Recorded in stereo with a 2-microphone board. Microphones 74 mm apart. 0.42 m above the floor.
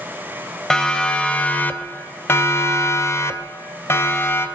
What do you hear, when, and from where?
0.7 s a siren: 10° left (ahead or behind), 2 m; by 4.5 s 30° left (ahead or behind), 2.5 m